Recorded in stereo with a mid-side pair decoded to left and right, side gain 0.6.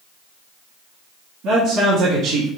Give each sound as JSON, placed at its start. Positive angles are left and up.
{"t": 1.4, "sound": "a man speaking", "azimuth_deg": -70, "distance_m": 1.9}